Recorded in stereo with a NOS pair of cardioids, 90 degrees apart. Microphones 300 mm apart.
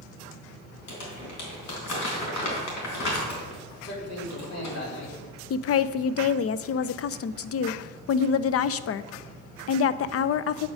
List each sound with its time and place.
0.9 s crumpling: 65° left, 3.5 m
3.8 s a man speaking: 60° left, 4.5 m
5.5 s a woman speaking: 55° left, 0.6 m